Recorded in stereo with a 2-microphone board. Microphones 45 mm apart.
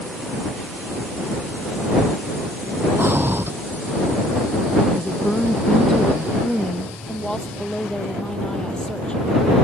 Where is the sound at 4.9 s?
15° left (ahead or behind).